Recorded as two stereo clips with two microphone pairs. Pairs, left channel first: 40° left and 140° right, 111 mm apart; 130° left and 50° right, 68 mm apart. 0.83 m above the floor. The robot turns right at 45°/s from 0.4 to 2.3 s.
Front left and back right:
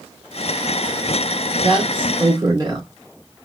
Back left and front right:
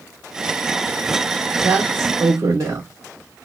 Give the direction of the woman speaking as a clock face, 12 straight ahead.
4 o'clock.